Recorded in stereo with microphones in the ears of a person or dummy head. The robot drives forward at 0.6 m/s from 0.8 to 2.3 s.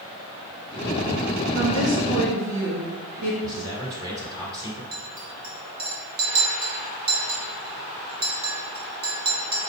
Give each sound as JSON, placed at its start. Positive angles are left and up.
{"t": 1.6, "sound": "a woman speaking", "side_deg": -80, "distance_m": 2.5}
{"t": 3.4, "sound": "a man speaking", "side_deg": -20, "distance_m": 1.9}
{"t": 4.9, "sound": "a clink", "side_deg": -30, "distance_m": 0.7}